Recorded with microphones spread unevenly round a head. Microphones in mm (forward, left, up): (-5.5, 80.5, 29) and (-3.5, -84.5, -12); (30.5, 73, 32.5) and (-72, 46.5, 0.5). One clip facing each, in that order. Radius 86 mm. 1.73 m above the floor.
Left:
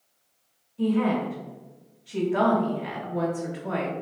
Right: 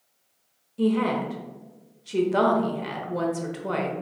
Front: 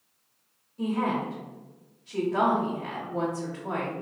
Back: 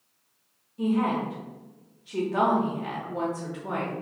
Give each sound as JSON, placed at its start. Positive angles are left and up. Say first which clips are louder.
{"t": 0.8, "sound": "a woman speaking", "louder": "even, back 2 dB", "azimuth_deg": -65, "distance_m": 0.7}